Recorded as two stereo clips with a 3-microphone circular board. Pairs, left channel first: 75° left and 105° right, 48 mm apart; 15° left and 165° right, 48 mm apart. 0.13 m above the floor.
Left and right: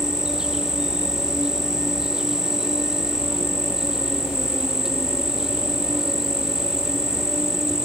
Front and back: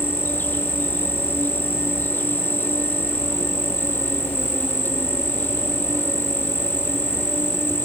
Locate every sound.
0.0 s an insect: 30° right